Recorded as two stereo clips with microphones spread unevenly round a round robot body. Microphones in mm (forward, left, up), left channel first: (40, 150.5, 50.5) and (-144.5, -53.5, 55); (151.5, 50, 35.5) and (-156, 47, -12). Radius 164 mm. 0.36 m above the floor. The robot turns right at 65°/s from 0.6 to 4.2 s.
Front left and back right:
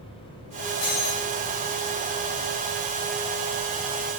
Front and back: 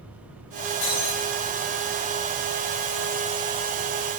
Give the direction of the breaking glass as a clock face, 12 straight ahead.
12 o'clock.